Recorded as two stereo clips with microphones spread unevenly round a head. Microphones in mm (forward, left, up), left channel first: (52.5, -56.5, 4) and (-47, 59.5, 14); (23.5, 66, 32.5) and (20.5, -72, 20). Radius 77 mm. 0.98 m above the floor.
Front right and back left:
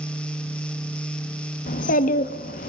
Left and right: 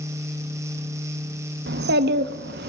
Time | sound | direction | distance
1.7 | a child speaking | 90° right | 0.8 m